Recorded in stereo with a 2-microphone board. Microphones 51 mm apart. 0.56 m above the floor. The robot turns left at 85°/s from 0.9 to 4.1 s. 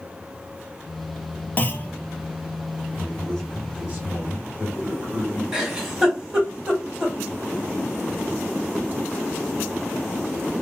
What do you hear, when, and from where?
1.6 s a clunk: 35° left (ahead or behind), 0.5 m
3.0 s a man speaking: 40° left, 2 m; by 5.4 s 55° right, 2 m
5.5 s a giggle: 15° right (ahead or behind), 1.2 m